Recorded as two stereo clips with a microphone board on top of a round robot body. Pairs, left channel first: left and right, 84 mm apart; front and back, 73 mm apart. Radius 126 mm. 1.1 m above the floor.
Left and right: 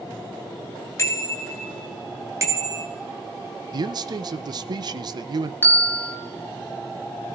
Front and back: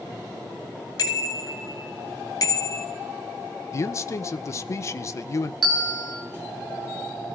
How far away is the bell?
About 1.7 m.